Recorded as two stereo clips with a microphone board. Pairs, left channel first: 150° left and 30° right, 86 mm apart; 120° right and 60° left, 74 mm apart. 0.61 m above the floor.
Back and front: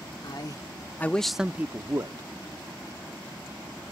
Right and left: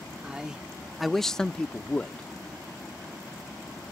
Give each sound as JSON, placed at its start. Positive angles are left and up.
{"t": 0.2, "sound": "a man speaking", "azimuth_deg": 135}